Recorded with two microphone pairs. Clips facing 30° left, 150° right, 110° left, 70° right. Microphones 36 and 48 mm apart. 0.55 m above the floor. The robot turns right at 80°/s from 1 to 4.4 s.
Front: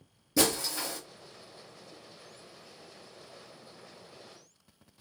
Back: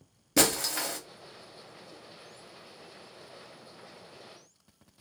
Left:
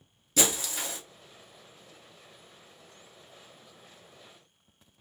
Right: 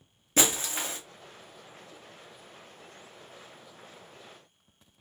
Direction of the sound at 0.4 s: 125° right.